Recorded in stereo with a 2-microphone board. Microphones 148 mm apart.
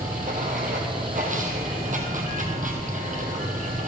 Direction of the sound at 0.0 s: 60° right (ahead or behind).